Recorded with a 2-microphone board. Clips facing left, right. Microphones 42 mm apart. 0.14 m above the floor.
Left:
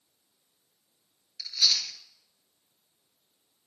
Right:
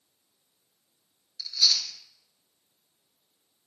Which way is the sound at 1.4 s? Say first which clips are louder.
Right 1 dB; 30° left (ahead or behind).